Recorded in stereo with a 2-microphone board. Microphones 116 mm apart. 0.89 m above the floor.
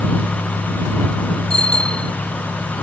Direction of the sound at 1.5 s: 65° left (ahead or behind).